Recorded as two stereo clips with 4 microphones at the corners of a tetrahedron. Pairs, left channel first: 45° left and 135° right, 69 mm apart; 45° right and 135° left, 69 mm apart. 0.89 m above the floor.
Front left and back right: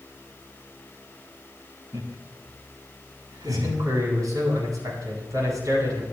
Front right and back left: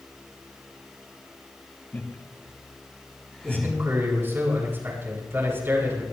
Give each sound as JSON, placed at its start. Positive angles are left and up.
{"t": 1.9, "sound": "laughter", "azimuth_deg": -105, "distance_m": 4.5}
{"t": 3.4, "sound": "a man speaking", "azimuth_deg": -165, "distance_m": 9.5}